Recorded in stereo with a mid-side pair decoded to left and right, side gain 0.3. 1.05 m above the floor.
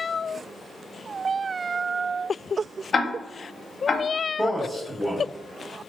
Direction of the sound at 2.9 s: 55° left.